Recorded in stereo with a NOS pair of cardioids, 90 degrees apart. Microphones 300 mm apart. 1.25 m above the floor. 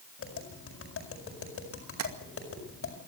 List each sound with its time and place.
0.2 s tapping: 50° left, 6.5 m
2.0 s tapping: 60° right, 2.5 m